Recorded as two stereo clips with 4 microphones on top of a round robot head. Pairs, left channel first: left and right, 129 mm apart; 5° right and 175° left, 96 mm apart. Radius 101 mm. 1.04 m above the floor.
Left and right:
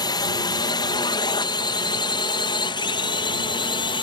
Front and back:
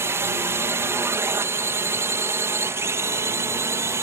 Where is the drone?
130° left; by 4.0 s 125° left.